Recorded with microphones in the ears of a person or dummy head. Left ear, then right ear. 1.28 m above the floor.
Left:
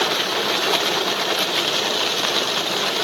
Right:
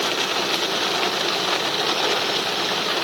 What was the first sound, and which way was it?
Only background noise.